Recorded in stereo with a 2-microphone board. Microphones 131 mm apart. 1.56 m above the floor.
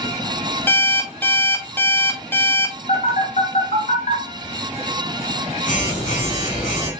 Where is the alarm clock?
15° left (ahead or behind), 0.6 m.